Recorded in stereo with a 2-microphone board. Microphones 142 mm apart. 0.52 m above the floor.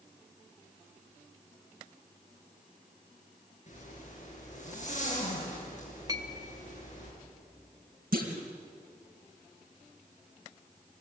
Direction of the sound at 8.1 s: 80° right.